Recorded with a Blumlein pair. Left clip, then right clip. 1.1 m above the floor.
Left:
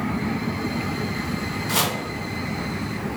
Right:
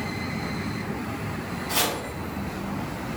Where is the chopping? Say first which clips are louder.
Left 2 dB; 25° left, 2.0 m.